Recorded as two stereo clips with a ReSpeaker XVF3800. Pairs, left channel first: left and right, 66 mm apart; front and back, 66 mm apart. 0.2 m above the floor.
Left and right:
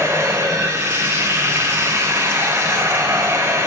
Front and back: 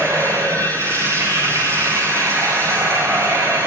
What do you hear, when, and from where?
0.0 s running water: 140° right, 7.5 m